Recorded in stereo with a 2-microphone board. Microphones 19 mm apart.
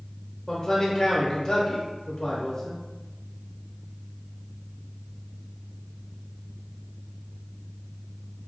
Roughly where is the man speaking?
Left.